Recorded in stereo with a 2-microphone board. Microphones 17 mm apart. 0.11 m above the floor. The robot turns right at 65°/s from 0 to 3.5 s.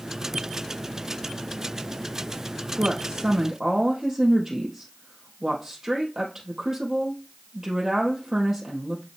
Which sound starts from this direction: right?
A woman speaking, at 2.8 s.